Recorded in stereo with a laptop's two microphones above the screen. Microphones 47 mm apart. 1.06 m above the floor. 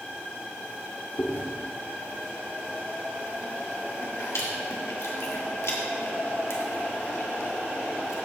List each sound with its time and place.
1.2 s chewing: 85° left, 1.9 m